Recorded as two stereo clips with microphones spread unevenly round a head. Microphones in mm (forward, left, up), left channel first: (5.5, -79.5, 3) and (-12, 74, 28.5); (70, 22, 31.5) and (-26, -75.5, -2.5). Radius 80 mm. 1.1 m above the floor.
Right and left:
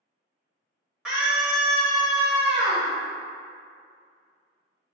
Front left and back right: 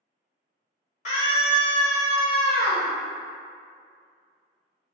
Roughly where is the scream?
Ahead.